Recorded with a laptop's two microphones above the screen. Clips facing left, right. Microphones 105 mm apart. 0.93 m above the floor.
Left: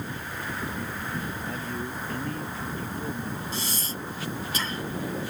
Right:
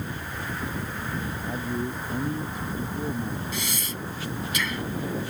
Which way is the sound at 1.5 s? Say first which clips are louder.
Right 3 dB; 15° right (ahead or behind).